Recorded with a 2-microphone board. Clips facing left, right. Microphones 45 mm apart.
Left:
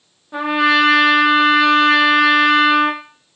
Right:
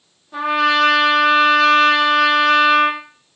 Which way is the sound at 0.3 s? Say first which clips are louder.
Left 1 dB; 20° left (ahead or behind).